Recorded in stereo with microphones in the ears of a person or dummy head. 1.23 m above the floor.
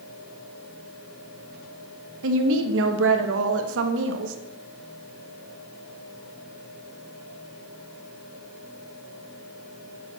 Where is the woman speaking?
75° right (ahead or behind), 1.2 m.